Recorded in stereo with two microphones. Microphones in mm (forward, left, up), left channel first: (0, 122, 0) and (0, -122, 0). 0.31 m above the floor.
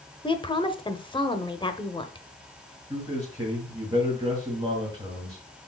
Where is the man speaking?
15° right (ahead or behind), 2.5 m.